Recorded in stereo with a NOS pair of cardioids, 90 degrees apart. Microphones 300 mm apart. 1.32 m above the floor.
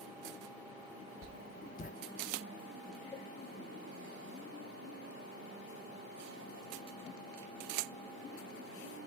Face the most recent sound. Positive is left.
turn(degrees=10)